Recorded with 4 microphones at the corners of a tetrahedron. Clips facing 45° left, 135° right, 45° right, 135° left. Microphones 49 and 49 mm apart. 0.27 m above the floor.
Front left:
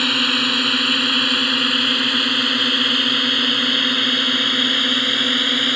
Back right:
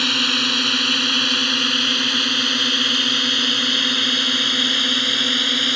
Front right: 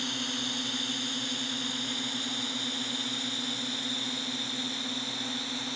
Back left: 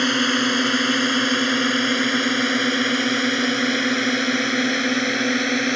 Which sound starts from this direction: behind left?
A drone, at 0.0 s.